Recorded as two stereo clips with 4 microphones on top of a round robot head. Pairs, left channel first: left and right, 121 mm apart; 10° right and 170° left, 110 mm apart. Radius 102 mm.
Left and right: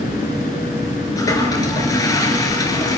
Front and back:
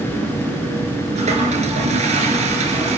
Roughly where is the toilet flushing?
Behind left.